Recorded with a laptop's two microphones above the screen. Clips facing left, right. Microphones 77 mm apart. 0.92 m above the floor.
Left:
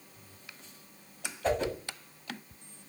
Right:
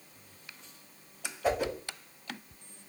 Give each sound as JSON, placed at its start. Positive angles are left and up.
{"t": 1.4, "sound": "a whoosh", "side_deg": -10, "distance_m": 1.4}